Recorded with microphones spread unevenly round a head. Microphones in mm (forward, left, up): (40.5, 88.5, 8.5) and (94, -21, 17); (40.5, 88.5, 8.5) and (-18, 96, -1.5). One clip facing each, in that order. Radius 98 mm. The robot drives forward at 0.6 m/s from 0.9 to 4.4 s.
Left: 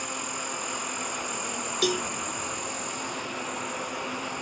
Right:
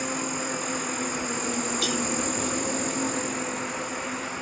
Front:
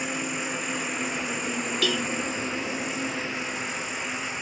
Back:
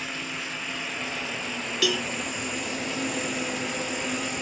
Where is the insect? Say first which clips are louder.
Right 5 dB, front 3 dB; 25° right; by 4.4 s 150° right.